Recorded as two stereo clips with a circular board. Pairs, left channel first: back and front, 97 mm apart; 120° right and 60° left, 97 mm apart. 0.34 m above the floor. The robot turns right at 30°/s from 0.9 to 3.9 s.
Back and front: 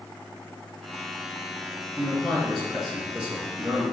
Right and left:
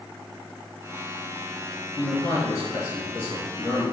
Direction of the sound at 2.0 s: 105° right.